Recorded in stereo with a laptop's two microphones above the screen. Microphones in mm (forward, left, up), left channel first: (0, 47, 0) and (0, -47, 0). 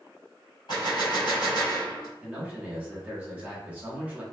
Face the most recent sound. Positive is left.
turn(degrees=-15)  # may be behind; listen again after turning